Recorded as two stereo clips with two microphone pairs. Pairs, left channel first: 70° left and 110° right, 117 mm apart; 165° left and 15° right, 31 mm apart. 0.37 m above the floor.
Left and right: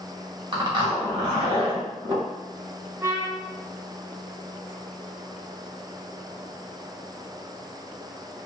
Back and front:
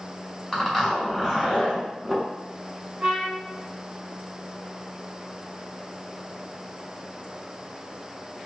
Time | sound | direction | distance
0.5 | a zipper | 115° right | 1.5 m
3.0 | a trumpet | 45° right | 1.0 m